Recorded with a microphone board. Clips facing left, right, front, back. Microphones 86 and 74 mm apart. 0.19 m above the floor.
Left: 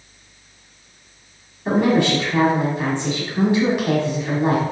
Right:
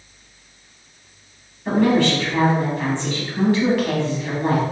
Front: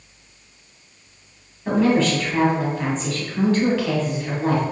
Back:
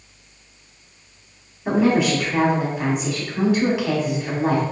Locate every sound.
1.6 s a woman speaking: 125° left, 1.0 m